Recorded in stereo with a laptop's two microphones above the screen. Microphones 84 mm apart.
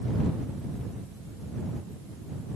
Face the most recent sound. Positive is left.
No sound to turn to.